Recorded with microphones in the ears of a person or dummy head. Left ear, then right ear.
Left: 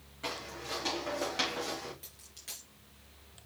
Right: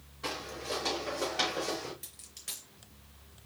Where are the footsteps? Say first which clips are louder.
Right 2 dB; 30° left (ahead or behind), 5.5 m.